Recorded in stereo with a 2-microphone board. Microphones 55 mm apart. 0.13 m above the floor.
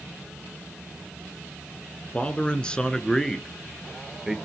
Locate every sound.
2.1 s a man speaking: 25° left (ahead or behind), 1.7 m; by 4.4 s 5° right (ahead or behind), 2 m